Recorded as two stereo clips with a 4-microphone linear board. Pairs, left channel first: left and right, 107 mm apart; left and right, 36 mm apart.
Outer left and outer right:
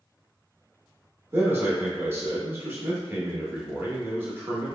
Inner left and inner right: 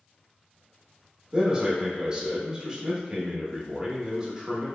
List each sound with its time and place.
1.3 s a man speaking: 25° right (ahead or behind), 0.8 m